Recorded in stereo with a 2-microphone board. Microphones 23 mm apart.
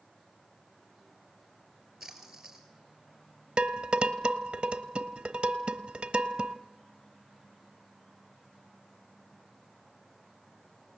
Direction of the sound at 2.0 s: 10° right (ahead or behind).